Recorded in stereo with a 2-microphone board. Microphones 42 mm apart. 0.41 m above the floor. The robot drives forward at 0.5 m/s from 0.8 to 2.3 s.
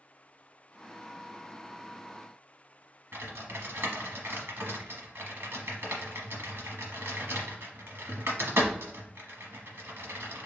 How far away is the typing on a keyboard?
About 1.0 m.